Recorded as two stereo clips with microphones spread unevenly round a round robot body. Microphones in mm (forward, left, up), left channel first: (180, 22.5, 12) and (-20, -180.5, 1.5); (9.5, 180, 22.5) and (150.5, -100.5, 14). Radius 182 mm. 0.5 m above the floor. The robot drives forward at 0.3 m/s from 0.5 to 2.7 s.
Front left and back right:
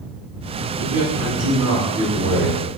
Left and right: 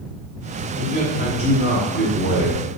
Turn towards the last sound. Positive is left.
turn(degrees=165)